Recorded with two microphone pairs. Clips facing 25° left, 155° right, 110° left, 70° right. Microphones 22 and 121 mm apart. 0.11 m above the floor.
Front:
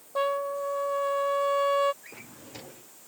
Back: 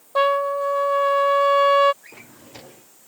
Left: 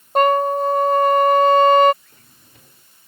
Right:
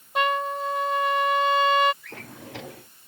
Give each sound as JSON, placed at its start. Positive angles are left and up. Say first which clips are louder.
{"t": 0.1, "sound": "a trumpet", "louder": "back 9 dB, left 9 dB", "azimuth_deg": 150}
{"t": 2.0, "sound": "a drawer", "louder": "back 2 dB, right 15 dB", "azimuth_deg": -75}